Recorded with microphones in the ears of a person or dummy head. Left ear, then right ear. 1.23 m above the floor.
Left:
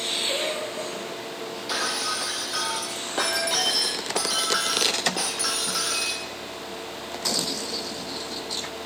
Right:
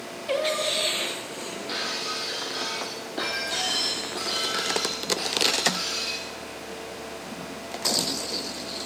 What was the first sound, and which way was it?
Singing, 30° right (ahead or behind).